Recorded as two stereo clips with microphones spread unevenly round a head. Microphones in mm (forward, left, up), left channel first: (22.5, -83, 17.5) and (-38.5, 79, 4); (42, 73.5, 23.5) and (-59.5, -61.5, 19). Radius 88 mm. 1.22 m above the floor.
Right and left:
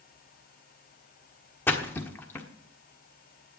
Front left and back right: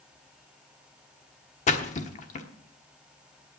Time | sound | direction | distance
1.7 | a splash | 5° left | 1.2 m